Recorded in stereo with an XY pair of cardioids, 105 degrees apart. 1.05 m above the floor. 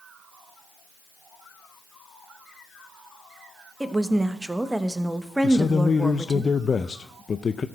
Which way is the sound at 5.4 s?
35° left.